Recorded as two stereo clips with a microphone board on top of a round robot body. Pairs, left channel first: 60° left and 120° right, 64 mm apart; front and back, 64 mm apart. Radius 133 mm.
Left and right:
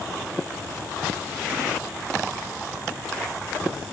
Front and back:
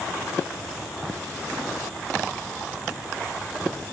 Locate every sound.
Only background noise.